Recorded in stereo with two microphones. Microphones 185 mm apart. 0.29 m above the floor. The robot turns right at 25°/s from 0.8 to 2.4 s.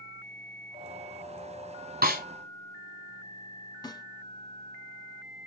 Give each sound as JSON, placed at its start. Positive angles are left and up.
{"t": 2.0, "sound": "a snare drum", "side_deg": -55, "distance_m": 1.6}
{"t": 3.8, "sound": "a snare drum", "side_deg": 20, "distance_m": 0.8}